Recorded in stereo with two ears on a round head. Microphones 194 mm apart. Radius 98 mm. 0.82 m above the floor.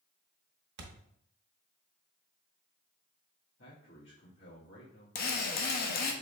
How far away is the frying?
I don't hear frying.